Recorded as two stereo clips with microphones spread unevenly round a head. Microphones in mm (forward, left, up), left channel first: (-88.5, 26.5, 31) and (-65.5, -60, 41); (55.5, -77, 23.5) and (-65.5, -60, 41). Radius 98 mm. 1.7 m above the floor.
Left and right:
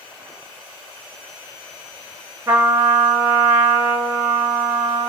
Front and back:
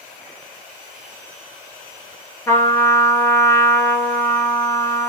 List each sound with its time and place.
2.5 s a trumpet: 80° right, 0.8 m